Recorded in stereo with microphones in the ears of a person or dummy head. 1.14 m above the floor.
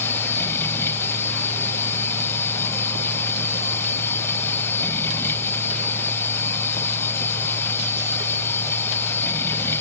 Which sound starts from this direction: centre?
A machine running, at 0.0 s.